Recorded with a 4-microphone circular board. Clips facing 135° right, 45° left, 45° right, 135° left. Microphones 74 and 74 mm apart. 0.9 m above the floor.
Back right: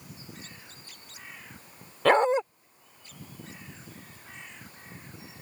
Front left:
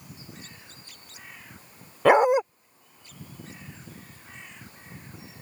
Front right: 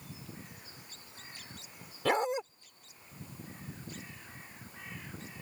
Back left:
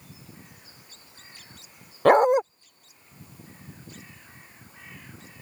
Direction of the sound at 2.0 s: 120° left.